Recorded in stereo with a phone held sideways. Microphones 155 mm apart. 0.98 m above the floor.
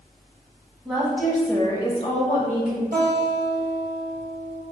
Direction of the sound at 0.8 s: 5° right (ahead or behind).